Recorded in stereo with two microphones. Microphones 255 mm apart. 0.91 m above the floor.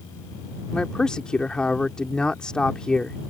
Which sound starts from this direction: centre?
A man speaking, at 0.7 s.